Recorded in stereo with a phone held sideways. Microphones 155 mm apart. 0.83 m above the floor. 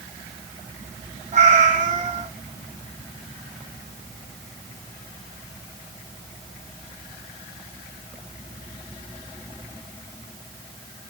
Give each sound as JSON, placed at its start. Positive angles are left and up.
{"t": 1.3, "sound": "a cat meowing", "side_deg": -50, "distance_m": 0.8}